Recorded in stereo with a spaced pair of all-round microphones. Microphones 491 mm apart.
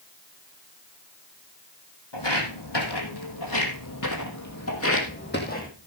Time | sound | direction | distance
2.1 | footsteps | 60° left (ahead or behind) | 2.5 m